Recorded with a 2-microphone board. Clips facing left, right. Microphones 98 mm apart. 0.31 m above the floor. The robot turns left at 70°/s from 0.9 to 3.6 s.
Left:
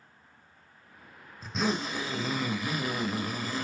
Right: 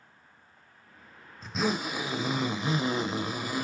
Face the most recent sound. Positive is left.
turn(degrees=-15)  # may be behind; listen again after turning